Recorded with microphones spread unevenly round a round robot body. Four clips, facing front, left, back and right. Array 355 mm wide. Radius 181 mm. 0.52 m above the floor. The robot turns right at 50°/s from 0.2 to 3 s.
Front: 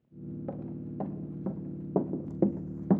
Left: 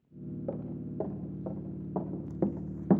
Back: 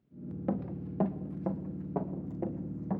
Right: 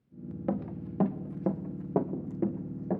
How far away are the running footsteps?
About 3.5 m.